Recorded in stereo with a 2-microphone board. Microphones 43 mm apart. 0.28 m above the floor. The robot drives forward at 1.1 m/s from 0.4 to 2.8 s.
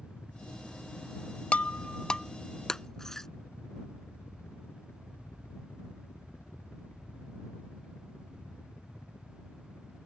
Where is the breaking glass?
35° left (ahead or behind); by 3.3 s 10° left (ahead or behind).